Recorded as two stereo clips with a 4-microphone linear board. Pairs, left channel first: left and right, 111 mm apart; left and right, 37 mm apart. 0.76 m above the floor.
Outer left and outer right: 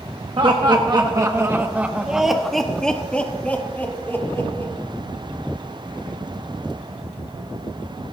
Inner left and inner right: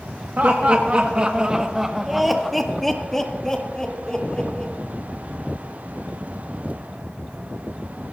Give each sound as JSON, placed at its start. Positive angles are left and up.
{"t": 0.4, "sound": "laughter", "side_deg": -50, "distance_m": 1.1}